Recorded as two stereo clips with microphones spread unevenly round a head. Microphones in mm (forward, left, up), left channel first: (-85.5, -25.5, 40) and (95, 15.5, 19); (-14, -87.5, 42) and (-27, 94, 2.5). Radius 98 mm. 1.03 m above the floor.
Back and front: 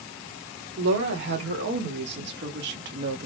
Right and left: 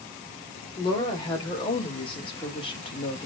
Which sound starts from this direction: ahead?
A woman speaking, at 0.8 s.